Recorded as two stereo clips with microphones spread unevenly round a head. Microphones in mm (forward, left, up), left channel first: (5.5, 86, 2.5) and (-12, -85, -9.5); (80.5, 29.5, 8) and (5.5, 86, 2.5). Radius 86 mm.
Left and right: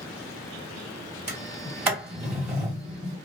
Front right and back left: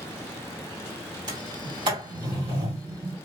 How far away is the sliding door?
About 1.5 m.